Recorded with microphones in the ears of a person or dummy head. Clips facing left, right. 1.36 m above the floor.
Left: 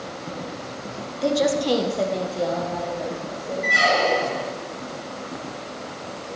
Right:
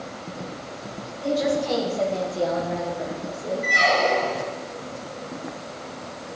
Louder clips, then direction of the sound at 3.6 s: Left 1 dB; 5° left (ahead or behind).